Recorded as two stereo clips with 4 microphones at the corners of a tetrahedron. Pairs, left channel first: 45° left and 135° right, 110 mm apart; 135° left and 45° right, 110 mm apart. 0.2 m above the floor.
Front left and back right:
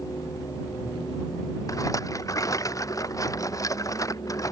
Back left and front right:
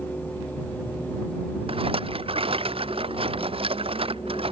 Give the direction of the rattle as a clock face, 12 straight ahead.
12 o'clock.